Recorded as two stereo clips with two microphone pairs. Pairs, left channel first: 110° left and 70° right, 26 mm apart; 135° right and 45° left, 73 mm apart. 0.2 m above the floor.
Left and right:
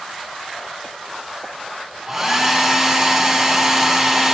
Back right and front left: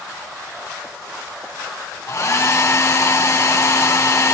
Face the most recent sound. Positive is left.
turn(degrees=-125)